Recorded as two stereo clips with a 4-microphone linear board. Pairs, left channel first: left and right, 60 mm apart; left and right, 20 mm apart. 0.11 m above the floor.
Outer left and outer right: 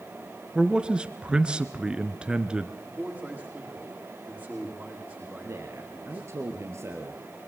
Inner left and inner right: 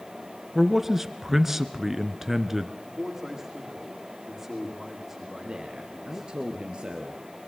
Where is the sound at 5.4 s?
50° right (ahead or behind), 2.5 m.